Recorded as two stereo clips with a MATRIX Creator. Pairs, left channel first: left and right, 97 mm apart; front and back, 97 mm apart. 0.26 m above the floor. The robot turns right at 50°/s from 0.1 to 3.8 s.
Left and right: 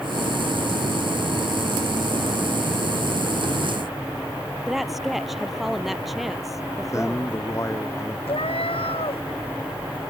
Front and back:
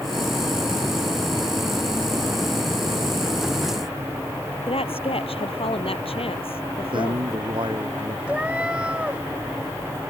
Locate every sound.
4.7 s a woman speaking: straight ahead
6.9 s a man speaking: 150° left
8.3 s a cat meowing: 100° left